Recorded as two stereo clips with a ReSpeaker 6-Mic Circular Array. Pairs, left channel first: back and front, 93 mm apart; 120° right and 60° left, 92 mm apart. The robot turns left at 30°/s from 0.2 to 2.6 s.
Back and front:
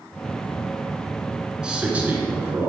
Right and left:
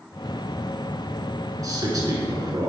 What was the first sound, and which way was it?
A man speaking, 75° left.